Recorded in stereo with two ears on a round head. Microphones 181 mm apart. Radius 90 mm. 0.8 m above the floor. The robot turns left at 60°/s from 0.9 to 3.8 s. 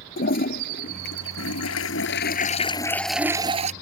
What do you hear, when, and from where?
0.2 s a toilet flushing: 130° left; by 3.7 s 35° right